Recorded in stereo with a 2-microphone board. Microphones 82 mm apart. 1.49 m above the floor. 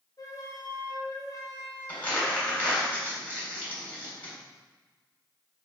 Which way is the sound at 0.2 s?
45° left (ahead or behind).